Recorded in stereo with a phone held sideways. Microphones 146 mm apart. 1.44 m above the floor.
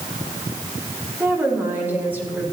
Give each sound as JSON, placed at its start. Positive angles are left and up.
{"t": 1.2, "sound": "a woman speaking", "side_deg": -15, "distance_m": 3.5}